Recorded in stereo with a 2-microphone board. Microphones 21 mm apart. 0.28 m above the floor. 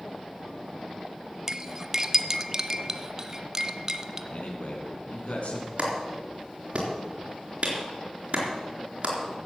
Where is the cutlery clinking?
25° right (ahead or behind), 0.8 m.